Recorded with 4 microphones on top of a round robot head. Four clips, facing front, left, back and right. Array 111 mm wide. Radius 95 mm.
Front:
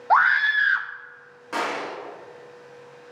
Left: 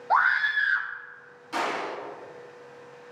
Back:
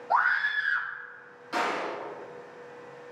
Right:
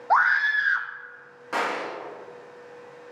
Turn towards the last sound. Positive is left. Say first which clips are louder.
# right 1 dB, front 2 dB
turn(degrees=-50)